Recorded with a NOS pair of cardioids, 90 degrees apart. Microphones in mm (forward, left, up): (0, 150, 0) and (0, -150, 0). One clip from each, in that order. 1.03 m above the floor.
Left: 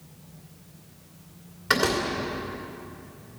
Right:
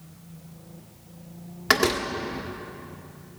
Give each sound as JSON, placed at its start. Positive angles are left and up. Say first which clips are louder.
{"t": 1.7, "sound": "a door slam", "louder": "right 2 dB", "azimuth_deg": -50, "distance_m": 2.0}